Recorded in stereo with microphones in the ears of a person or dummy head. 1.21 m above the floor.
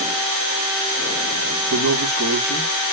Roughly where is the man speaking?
Right.